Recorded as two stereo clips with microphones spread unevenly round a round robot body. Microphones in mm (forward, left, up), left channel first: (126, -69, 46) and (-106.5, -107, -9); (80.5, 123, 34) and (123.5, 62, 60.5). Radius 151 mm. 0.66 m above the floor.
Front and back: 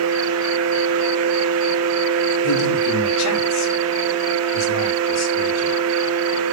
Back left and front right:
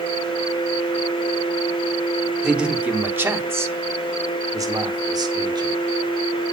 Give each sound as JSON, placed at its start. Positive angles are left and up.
{"t": 2.4, "sound": "a man speaking", "azimuth_deg": 35, "distance_m": 2.5}